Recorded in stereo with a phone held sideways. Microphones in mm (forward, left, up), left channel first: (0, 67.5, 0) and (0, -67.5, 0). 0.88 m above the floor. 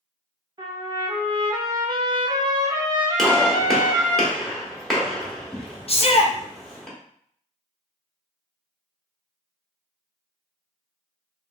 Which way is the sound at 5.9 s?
45° left (ahead or behind).